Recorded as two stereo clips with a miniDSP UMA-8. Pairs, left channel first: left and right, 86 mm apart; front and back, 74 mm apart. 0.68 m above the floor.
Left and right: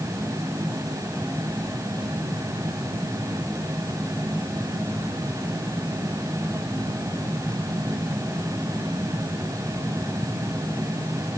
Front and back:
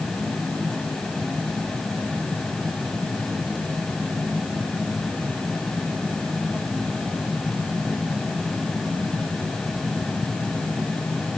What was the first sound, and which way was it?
Only background noise.